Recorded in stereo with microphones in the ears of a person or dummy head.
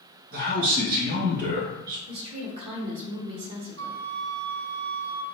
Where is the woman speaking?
35° right (ahead or behind), 0.9 m.